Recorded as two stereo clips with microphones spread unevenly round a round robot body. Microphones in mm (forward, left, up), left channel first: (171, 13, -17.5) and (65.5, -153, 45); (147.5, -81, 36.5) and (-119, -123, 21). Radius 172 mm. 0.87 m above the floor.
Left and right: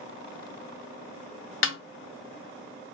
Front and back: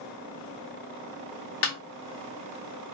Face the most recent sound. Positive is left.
turn(degrees=40)